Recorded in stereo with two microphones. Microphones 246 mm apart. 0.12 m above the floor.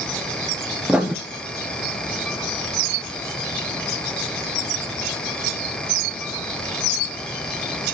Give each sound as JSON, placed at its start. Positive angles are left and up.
{"t": 0.9, "sound": "writing", "side_deg": -5, "distance_m": 0.7}